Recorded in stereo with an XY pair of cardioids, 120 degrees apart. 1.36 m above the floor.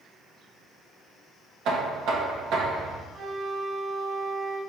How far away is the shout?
I don't hear a shout.